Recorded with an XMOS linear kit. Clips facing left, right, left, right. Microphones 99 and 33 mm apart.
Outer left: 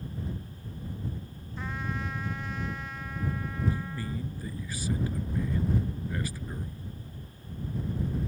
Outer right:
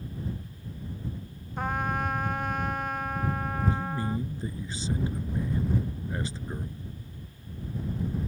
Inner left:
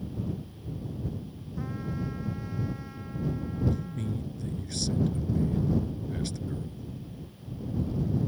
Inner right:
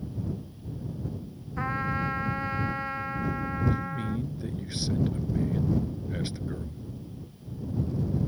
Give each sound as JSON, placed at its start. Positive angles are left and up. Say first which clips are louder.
{"t": 1.6, "sound": "a trumpet", "louder": "outer right 7 dB, inner right 7 dB", "side_deg": -60}
{"t": 3.7, "sound": "a man speaking", "louder": "outer right 5 dB, inner right 3 dB", "side_deg": -25}